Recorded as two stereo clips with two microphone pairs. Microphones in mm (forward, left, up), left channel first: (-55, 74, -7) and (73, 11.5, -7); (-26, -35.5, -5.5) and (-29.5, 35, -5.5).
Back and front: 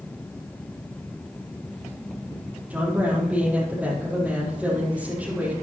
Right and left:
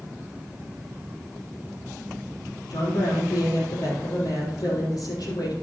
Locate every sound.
2.7 s a woman speaking: 105° right, 5.5 m